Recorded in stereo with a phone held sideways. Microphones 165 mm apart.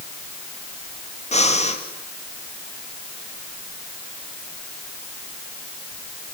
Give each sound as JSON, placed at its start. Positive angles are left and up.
{"t": 1.3, "sound": "breathing", "side_deg": 40, "distance_m": 2.5}